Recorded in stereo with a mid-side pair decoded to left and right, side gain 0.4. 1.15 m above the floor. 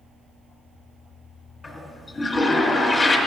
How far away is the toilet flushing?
About 2.5 m.